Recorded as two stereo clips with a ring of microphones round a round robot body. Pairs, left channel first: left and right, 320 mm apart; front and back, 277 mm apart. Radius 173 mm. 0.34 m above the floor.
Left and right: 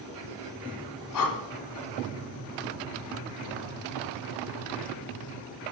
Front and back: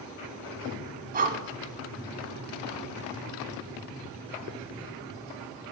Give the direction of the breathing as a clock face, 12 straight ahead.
8 o'clock.